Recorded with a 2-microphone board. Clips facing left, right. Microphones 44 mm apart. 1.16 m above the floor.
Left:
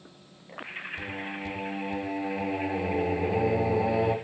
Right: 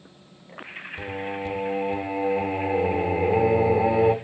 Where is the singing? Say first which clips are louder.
Right 9 dB; 25° right (ahead or behind), 0.7 m.